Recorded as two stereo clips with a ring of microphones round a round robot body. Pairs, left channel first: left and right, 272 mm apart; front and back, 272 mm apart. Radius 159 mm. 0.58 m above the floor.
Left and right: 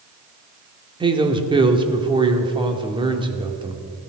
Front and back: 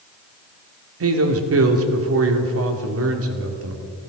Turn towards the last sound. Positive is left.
turn(degrees=-160)